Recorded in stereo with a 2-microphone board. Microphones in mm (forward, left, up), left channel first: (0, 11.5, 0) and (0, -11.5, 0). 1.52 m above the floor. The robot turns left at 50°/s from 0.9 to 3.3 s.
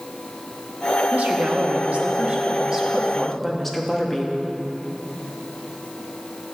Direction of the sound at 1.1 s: 75° right.